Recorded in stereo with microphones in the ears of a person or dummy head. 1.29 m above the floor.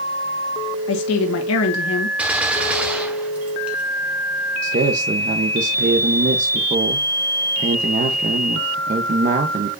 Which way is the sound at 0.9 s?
65° left (ahead or behind).